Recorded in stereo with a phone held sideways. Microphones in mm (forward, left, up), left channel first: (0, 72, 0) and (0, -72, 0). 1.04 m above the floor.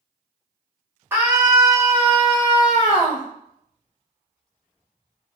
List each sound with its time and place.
1.1 s a scream: 15° right (ahead or behind), 1.1 m; by 3.2 s 45° left (ahead or behind), 1.4 m